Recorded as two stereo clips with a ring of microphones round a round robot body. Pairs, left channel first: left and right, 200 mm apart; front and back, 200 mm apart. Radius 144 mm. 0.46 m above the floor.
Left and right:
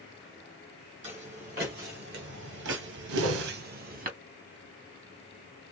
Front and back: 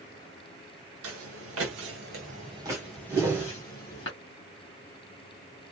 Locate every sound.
1.0 s footsteps: 160° right, 1.1 m; by 4.1 s 50° right, 0.9 m
3.1 s a whoosh: 95° right, 0.6 m